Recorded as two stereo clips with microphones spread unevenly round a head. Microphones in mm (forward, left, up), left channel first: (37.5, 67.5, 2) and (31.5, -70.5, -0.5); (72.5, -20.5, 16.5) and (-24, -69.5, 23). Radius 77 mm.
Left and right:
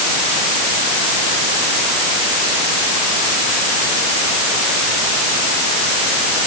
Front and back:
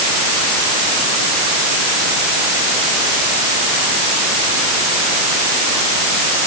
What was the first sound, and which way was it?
Only background noise.